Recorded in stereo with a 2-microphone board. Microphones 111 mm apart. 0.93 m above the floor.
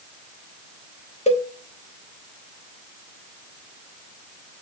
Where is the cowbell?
85° left, 1.1 m.